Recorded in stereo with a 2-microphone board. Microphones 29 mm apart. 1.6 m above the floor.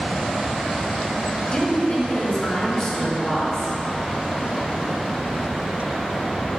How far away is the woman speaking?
About 1.5 m.